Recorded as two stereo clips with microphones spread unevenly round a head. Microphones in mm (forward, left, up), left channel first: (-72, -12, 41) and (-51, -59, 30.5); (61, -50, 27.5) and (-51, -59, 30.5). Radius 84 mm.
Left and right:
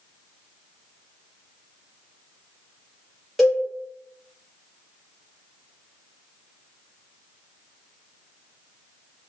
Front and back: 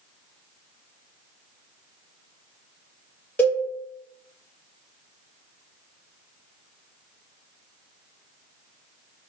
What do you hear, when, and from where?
3.4 s a cowbell: 65° left, 0.5 m